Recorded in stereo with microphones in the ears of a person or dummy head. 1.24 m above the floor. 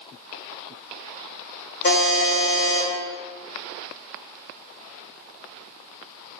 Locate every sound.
1.8 s a buzzer: 55° left (ahead or behind), 1.3 m